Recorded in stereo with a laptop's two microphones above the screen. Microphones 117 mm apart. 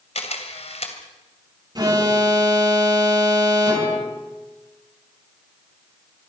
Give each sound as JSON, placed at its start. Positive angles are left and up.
{"t": 0.1, "sound": "a camera shutter", "side_deg": 65, "distance_m": 3.0}
{"t": 1.8, "sound": "an alarm", "side_deg": -35, "distance_m": 4.0}